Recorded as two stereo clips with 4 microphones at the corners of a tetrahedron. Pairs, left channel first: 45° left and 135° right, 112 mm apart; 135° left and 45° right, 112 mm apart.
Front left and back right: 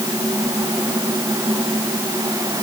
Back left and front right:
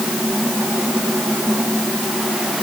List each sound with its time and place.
Only background noise.